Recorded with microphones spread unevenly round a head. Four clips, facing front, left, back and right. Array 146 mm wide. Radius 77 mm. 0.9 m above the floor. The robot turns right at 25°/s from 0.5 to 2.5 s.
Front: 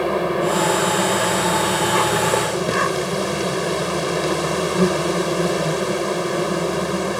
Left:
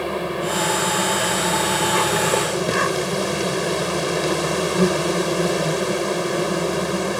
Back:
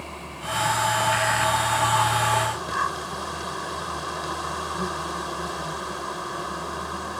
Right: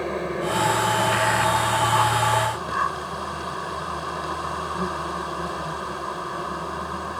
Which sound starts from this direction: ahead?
An insect, at 0.0 s.